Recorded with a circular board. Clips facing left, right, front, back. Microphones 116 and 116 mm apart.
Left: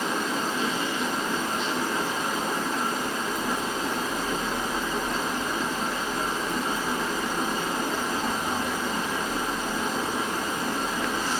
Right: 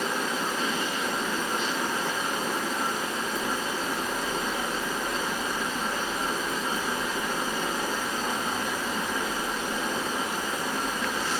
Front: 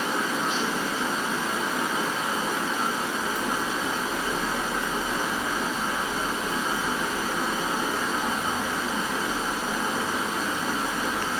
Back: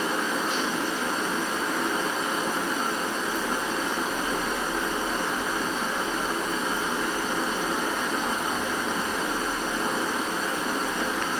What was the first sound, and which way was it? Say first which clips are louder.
Running water: left 1 dB, even; 80° left.